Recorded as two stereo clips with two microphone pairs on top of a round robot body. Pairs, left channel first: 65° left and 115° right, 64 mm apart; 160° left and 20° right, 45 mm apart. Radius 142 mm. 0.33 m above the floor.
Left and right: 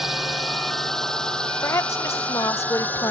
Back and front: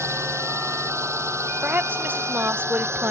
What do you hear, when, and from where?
0.0 s a drone: 30° right; by 3.1 s 5° left
1.6 s a woman speaking: 20° left